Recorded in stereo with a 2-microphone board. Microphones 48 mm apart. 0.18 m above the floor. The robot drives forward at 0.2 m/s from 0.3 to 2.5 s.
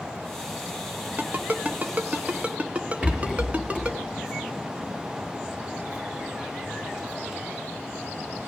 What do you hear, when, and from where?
1.2 s a ringtone: 40° right (ahead or behind), 0.6 m; by 4.0 s 30° right (ahead or behind), 0.7 m
3.0 s a rattle: 20° right (ahead or behind), 2.5 m